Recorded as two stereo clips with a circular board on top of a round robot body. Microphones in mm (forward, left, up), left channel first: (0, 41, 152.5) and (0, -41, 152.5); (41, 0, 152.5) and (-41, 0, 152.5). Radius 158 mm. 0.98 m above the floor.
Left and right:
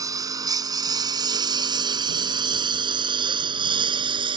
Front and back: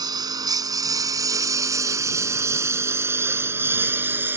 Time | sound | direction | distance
0.0 | a lawn mower | 140° right | ?